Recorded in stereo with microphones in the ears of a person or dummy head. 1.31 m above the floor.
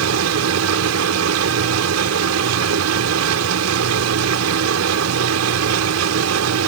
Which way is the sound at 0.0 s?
85° right.